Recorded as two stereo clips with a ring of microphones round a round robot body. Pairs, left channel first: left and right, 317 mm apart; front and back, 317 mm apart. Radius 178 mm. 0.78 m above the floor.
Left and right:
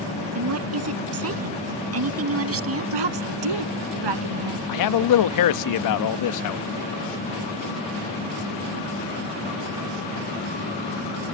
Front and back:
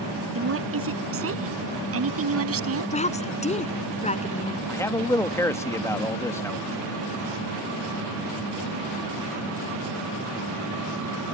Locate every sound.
0.3 s a woman speaking: 130° right; by 3.0 s 135° right
2.9 s a woman speaking: 70° right
4.7 s a man speaking: 80° left